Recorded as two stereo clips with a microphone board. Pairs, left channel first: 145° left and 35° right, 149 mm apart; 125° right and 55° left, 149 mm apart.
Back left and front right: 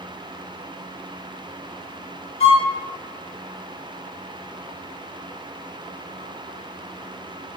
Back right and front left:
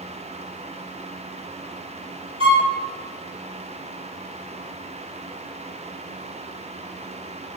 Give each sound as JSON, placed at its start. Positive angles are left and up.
{"t": 2.4, "sound": "a violin", "azimuth_deg": 105, "distance_m": 0.8}